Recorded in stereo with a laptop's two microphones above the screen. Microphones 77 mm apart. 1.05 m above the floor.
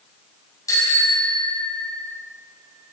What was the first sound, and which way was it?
A bicycle bell, 50° left (ahead or behind).